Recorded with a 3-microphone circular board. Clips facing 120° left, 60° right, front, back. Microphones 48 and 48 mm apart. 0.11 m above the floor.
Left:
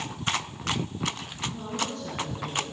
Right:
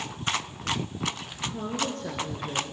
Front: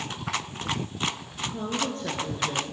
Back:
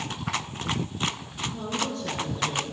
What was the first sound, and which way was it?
A woman speaking, 35° right.